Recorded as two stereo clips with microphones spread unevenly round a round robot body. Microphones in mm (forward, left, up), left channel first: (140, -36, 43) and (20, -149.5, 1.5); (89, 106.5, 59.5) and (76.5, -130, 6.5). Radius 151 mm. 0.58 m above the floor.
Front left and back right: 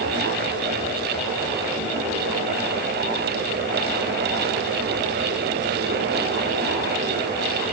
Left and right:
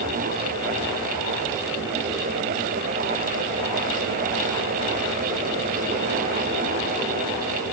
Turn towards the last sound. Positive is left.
No sound to turn to.